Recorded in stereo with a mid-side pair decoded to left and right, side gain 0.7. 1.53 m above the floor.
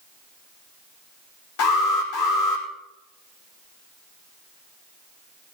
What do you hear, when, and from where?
1.6 s an alarm: 70° left, 4.5 m